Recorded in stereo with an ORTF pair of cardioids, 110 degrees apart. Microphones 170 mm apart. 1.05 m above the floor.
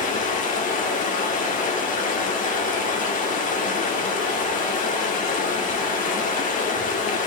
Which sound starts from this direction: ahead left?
Running water, at 0.0 s.